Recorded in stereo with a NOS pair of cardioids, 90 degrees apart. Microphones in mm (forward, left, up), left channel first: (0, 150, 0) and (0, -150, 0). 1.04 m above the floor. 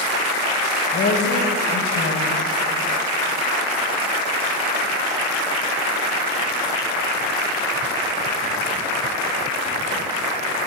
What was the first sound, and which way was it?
A woman speaking, 60° left.